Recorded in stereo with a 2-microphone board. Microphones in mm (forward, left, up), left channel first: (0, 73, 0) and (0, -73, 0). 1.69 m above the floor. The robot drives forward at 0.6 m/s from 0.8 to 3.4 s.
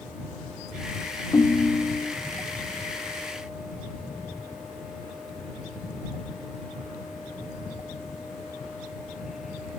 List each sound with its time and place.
1.3 s a ringtone: 20° left (ahead or behind), 0.6 m; by 2.1 s 15° left (ahead or behind), 0.8 m